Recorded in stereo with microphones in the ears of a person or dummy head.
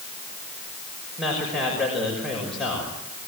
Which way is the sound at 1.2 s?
Centre (ahead or behind).